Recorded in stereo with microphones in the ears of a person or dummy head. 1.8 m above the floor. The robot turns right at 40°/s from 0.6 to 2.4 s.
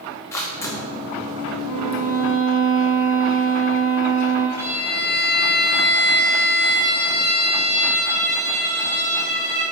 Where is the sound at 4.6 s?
10° right (ahead or behind), 1.4 m.